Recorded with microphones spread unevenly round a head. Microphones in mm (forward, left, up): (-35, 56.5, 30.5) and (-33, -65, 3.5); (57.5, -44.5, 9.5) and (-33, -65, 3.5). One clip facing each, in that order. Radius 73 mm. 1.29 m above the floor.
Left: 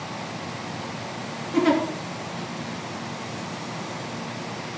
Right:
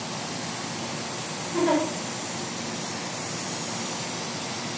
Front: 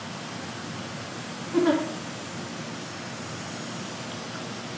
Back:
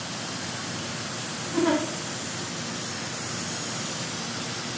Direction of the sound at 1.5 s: 95° left.